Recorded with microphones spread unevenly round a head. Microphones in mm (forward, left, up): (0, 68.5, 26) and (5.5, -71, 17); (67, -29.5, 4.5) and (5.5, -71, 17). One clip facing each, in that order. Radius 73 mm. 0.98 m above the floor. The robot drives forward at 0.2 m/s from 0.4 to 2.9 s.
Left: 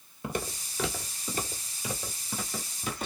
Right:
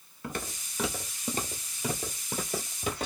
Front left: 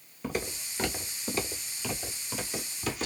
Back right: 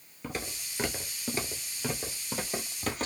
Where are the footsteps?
120° left, 1.0 m; by 3.1 s 110° right, 1.9 m.